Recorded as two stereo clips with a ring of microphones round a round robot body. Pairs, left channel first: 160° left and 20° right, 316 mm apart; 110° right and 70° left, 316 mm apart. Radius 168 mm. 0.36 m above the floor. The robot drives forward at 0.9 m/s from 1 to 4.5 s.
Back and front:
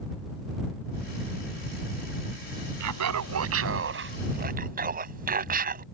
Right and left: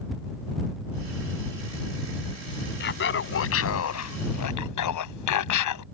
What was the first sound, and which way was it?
Laughter, 55° right.